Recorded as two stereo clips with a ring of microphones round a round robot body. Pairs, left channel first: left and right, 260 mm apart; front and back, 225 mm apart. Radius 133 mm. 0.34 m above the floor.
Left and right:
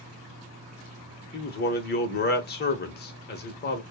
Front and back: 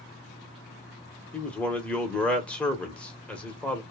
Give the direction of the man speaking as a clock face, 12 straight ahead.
9 o'clock.